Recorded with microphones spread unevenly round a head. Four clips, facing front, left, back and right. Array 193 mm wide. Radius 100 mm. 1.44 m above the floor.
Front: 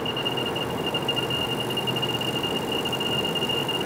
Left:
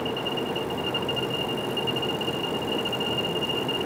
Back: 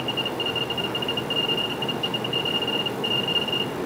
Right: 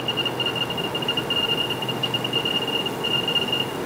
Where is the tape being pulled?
No tape being pulled in this recording.